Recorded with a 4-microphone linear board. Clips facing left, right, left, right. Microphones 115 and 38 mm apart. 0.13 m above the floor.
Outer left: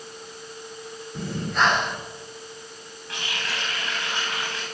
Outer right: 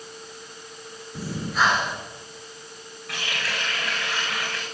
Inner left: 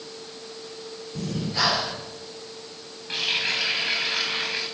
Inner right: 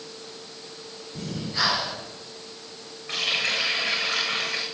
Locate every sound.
1.1 s breathing: 5° right (ahead or behind), 1.8 m
3.1 s a running tap: 80° right, 6 m